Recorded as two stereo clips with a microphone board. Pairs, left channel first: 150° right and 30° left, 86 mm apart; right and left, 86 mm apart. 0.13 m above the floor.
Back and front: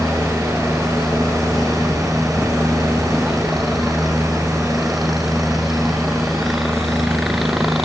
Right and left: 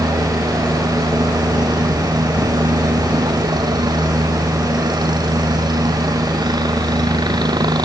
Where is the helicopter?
120° left.